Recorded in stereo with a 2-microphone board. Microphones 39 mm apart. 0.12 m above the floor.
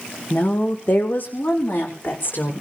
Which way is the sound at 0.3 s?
40° left (ahead or behind).